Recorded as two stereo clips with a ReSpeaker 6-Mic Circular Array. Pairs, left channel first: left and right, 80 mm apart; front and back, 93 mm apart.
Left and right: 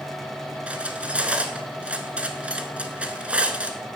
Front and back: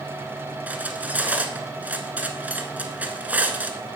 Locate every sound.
0.7 s cutlery clinking: 135° right, 0.9 m